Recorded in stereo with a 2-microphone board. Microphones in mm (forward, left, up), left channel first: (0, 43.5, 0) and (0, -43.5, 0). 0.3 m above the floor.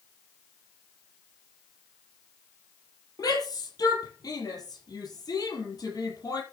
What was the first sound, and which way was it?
A shout, 50° left (ahead or behind).